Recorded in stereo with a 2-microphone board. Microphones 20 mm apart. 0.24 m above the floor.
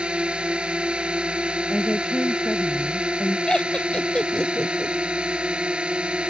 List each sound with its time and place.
0.0 s a drone: 55° right (ahead or behind)
1.7 s a woman speaking: 30° left (ahead or behind)
3.5 s laughter: 40° left (ahead or behind)